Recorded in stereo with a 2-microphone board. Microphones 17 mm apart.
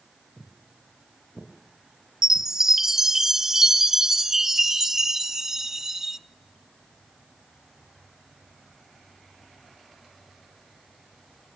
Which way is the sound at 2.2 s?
25° right (ahead or behind).